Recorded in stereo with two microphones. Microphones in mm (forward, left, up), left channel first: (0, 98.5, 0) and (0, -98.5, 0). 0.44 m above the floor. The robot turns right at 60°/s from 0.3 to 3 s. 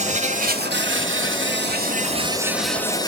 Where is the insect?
140° right, 1.0 m; by 3.1 s 20° left, 1.0 m.